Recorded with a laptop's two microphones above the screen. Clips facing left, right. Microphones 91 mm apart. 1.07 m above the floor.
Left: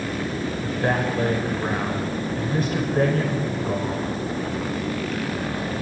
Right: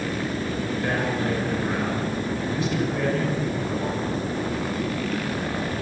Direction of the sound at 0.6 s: 45° left (ahead or behind).